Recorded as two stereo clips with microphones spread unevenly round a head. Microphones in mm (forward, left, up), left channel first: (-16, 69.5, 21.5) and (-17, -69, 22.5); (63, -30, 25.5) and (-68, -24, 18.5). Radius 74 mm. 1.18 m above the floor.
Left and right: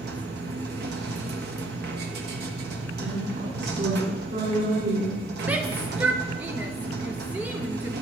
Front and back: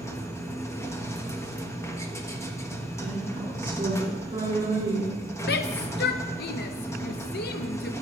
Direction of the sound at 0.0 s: 75° right.